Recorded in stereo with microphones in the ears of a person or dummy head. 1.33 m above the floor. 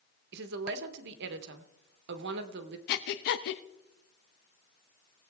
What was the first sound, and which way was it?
A woman speaking, 65° right (ahead or behind).